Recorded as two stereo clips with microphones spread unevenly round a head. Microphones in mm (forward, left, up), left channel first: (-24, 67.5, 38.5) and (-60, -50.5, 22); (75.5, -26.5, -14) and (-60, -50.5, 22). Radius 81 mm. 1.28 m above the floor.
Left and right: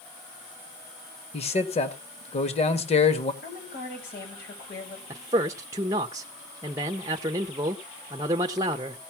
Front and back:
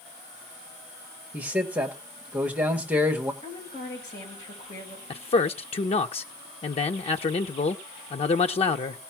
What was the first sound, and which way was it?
A man speaking, 110° left.